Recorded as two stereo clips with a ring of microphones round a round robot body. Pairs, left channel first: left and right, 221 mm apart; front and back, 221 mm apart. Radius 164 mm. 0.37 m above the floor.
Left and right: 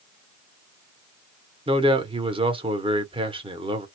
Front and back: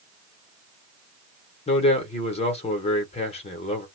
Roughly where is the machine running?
No machine running in this recording.